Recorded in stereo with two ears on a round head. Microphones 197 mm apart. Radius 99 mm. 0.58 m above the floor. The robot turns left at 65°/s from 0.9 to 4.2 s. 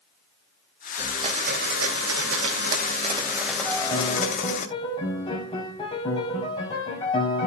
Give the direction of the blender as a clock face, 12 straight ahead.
12 o'clock.